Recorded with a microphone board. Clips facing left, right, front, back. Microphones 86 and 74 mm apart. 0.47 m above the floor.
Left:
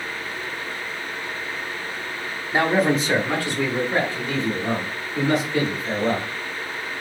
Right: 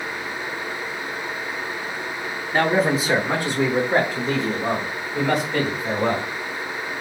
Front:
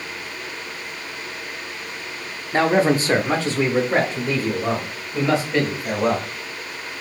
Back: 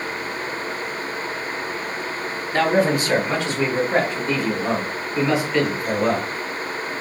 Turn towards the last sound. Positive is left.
turn(degrees=-60)